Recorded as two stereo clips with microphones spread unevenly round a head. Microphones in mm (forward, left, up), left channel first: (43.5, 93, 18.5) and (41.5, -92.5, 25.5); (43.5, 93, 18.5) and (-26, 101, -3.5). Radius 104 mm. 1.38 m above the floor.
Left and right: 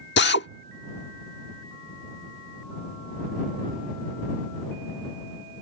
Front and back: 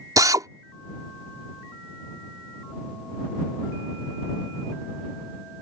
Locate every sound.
0.2 s a drill: 130° left